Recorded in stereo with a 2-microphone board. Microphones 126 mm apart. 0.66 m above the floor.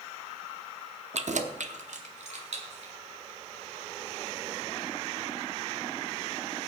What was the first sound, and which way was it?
Keys jangling, 60° right (ahead or behind).